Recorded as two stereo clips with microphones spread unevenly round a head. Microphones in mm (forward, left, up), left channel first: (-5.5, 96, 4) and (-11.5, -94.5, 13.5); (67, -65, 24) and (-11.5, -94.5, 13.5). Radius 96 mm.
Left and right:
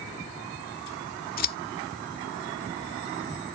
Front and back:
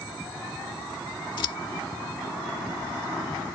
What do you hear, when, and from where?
1.4 s scissors: 50° left